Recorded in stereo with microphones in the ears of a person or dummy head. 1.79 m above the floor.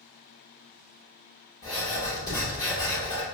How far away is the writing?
About 1.3 m.